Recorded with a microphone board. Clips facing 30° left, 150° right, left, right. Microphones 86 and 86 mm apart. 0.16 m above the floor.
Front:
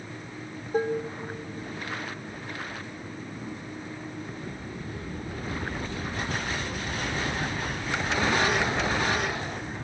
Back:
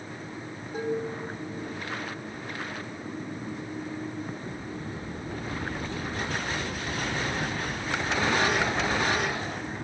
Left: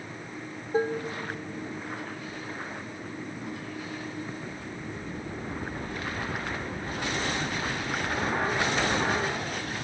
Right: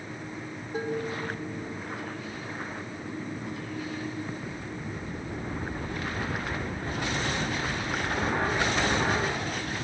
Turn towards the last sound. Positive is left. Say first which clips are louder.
# front 4 dB, left 4 dB
turn(degrees=45)